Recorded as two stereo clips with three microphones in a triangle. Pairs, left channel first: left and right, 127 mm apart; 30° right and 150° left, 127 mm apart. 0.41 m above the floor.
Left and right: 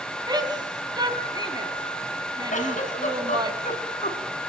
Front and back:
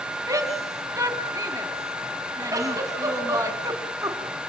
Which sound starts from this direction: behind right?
A shout, at 0.3 s.